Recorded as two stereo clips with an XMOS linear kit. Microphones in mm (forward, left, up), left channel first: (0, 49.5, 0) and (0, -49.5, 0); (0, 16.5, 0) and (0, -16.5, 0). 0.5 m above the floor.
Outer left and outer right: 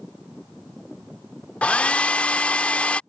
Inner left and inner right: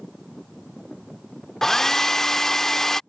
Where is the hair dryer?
15° left (ahead or behind).